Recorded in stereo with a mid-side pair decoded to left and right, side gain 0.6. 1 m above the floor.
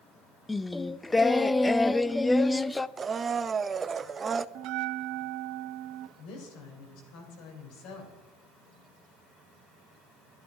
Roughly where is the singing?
Ahead.